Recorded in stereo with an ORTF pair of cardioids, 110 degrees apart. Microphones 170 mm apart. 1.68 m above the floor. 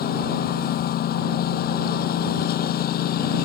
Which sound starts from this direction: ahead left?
A lawn mower, at 0.0 s.